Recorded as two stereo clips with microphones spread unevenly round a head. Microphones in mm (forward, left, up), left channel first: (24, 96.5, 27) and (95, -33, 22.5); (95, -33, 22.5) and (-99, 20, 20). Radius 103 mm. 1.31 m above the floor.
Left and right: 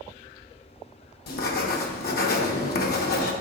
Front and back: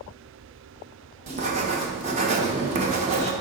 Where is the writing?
105° left, 0.8 m.